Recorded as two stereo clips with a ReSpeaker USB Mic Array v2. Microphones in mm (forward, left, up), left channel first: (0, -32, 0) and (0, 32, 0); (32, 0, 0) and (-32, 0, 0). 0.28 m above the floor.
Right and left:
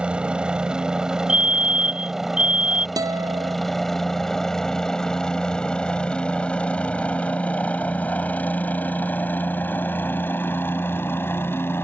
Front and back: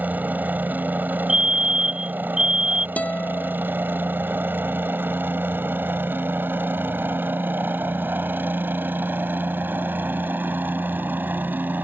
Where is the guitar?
70° left.